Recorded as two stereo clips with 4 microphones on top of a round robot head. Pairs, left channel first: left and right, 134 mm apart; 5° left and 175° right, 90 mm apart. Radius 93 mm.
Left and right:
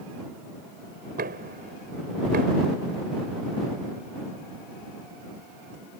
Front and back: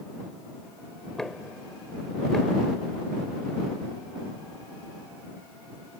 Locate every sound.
1.2 s knocking: 80° right